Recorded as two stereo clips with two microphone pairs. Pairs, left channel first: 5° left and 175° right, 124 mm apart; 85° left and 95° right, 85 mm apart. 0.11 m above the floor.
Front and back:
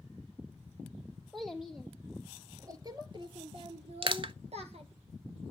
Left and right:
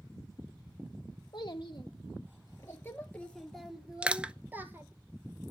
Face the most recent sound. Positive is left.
turn(degrees=-160)